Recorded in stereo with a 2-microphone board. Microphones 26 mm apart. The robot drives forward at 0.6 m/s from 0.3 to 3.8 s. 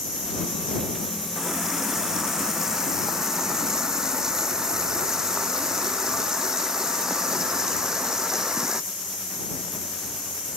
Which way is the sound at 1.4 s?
20° right (ahead or behind).